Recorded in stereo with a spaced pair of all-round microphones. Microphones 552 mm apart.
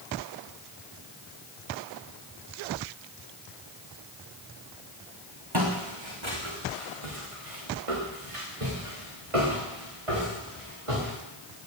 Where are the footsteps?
45° right (ahead or behind), 4.5 m; by 11.2 s 65° right (ahead or behind), 8 m.